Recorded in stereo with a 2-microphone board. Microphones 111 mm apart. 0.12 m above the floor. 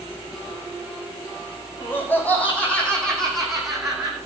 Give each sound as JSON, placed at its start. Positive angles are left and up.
{"t": 1.8, "sound": "laughter", "side_deg": 20, "distance_m": 5.0}